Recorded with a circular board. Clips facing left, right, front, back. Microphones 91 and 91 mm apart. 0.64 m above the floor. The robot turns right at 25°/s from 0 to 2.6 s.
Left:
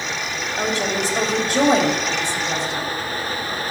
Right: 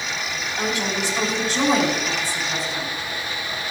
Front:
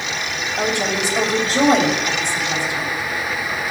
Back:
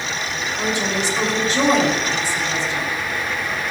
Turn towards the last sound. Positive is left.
turn(degrees=80)